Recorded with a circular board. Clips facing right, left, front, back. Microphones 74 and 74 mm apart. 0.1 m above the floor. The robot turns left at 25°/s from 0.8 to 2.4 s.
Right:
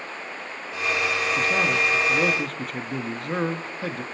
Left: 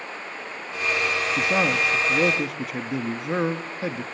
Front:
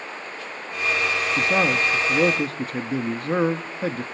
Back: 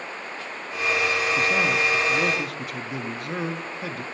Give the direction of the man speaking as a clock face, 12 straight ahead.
11 o'clock.